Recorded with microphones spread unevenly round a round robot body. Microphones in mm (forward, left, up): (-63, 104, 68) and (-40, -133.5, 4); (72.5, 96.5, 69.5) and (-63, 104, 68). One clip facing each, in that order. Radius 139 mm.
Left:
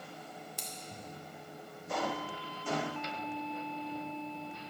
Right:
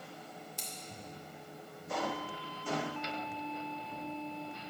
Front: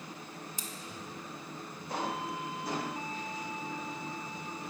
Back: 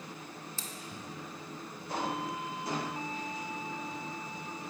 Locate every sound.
0.6 s scissors: 70° left, 0.5 m